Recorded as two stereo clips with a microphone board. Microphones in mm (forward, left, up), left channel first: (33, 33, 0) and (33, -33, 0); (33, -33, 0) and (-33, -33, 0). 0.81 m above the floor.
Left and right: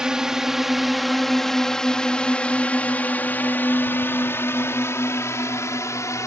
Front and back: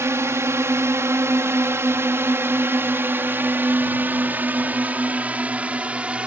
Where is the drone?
165° right; by 6.3 s 110° left.